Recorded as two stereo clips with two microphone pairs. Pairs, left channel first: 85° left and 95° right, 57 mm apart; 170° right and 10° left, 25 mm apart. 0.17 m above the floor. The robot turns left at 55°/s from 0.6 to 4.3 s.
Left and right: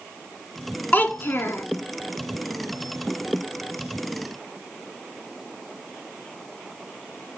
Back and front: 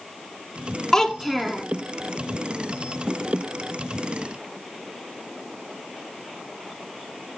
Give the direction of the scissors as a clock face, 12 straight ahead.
No scissors in this recording.